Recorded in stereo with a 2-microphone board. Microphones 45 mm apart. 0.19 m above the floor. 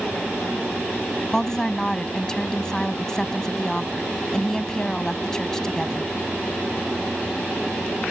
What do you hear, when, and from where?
1.3 s a woman speaking: 15° left (ahead or behind)